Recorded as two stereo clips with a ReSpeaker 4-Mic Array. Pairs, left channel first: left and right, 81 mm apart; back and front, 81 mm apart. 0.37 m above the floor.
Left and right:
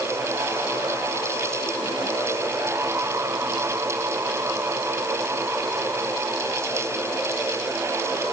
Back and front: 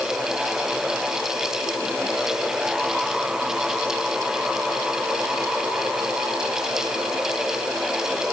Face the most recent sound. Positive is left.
No sound to turn to.